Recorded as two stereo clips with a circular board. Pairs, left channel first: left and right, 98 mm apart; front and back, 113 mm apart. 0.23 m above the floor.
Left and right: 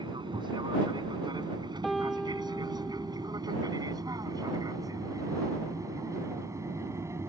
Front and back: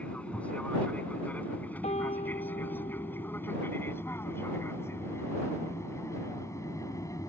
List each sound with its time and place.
0.0 s an aircraft: 75° right; by 7.3 s 45° right
1.8 s a piano: straight ahead